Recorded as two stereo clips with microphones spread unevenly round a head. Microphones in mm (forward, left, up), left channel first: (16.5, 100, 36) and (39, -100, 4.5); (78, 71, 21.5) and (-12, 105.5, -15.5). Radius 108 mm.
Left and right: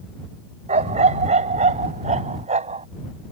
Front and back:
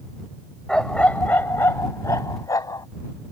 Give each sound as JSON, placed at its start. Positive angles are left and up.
{"t": 0.7, "sound": "a dog barking", "azimuth_deg": -40}